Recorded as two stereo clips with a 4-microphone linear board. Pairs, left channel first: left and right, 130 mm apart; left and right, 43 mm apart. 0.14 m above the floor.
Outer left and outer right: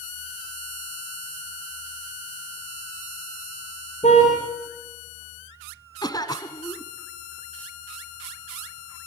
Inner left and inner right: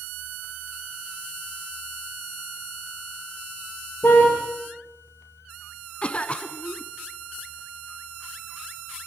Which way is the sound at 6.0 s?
30° left (ahead or behind).